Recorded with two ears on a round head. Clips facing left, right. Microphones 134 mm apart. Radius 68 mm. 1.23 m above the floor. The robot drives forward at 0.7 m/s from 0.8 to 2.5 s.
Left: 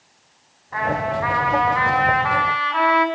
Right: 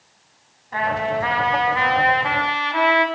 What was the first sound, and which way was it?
A trumpet, 35° right (ahead or behind).